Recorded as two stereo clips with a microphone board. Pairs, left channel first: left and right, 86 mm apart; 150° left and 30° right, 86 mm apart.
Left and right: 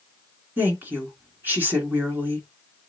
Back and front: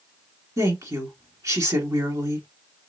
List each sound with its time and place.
0.6 s a woman speaking: 40° right, 1.6 m